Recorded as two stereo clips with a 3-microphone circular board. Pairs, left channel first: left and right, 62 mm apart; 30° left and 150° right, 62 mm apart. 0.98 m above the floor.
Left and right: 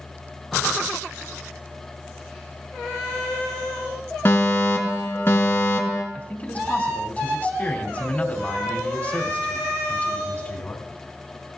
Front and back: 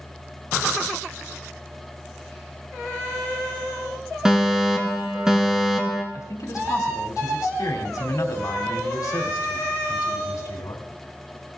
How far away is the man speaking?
About 2.5 m.